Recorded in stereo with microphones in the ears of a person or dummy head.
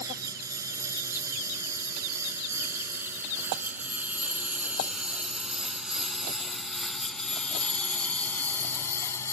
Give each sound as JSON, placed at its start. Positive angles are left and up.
{"t": 0.0, "sound": "a lawn mower", "side_deg": -20}